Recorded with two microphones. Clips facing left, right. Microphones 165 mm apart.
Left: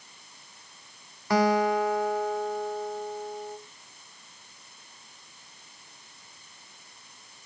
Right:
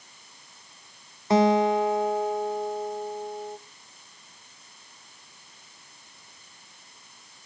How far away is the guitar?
About 0.6 m.